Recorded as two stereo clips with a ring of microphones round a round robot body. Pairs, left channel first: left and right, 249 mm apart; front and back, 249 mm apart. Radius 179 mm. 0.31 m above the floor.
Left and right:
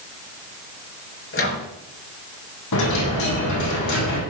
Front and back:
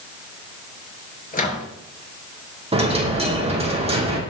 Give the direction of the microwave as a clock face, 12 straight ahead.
10 o'clock.